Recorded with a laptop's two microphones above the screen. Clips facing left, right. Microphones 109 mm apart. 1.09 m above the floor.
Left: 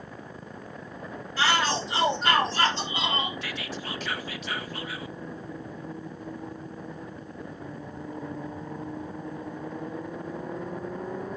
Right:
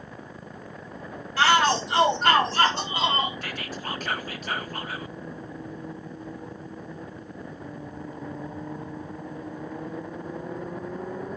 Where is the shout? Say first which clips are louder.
Right 5 dB; 65° right (ahead or behind), 3.5 m; by 3.3 s 45° right (ahead or behind), 3.5 m.